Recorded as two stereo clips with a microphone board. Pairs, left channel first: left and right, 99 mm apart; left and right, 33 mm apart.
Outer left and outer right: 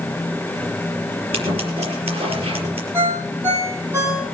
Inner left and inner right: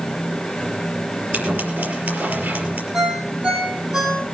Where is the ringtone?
25° right (ahead or behind), 5 m.